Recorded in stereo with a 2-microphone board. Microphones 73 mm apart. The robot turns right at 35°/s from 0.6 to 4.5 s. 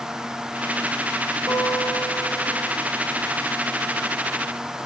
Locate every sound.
1.5 s a guitar: 60° right, 7.5 m; by 2.8 s 15° right, 7.5 m